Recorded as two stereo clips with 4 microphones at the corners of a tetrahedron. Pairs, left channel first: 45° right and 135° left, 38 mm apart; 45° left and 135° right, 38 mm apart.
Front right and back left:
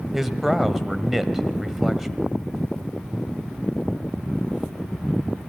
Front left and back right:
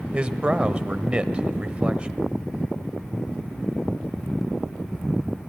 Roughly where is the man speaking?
Behind right.